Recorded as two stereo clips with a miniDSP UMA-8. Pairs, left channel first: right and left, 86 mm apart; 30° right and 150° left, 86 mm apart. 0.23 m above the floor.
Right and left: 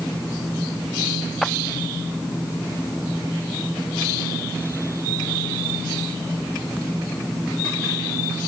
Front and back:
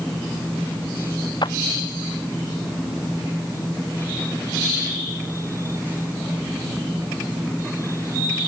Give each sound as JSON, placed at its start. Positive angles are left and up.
{"t": 1.4, "sound": "a clap", "azimuth_deg": 0}